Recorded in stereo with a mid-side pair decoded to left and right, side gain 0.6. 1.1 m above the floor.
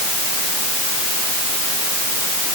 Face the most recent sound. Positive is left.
No sound to turn to.